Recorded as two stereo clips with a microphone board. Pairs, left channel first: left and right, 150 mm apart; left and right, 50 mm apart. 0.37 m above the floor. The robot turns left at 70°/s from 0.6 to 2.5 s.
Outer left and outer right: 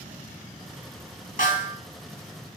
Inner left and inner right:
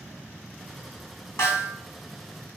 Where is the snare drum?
65° left (ahead or behind), 3 m; by 1.8 s 60° left (ahead or behind), 3 m.